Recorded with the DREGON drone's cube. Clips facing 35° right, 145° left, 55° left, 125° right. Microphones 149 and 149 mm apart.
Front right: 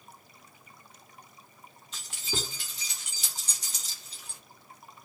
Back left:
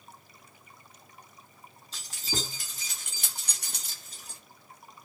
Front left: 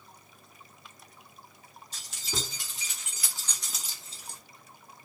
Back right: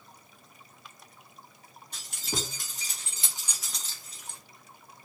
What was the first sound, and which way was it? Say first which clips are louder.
Keys jangling: even, back right 2 dB; 160° right.